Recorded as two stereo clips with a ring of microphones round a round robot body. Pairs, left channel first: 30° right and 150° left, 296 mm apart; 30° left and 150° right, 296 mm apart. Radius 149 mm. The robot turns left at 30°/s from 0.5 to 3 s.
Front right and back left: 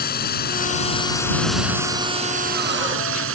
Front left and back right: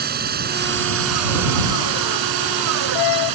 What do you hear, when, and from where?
0.0 s a drone: 90° right; by 3.3 s 160° right